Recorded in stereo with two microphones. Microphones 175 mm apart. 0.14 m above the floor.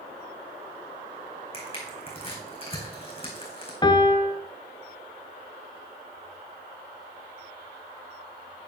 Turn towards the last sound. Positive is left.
turn(degrees=25)  # may be behind; listen again after turning